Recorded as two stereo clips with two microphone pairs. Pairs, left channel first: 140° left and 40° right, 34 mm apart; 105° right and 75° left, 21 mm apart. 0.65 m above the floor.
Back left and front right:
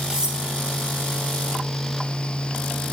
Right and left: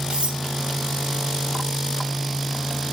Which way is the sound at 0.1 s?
30° left.